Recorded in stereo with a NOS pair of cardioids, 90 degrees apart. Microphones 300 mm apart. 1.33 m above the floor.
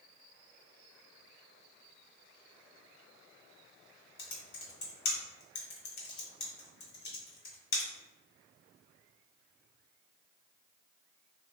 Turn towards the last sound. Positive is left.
turn(degrees=70)